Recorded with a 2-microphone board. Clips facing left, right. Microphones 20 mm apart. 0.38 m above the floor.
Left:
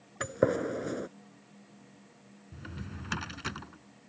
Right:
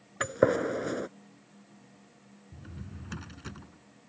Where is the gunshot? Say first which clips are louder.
Right 3 dB; 25° right (ahead or behind).